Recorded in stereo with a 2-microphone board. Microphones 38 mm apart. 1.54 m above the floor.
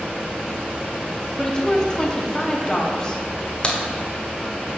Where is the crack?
25° left (ahead or behind), 1.1 m.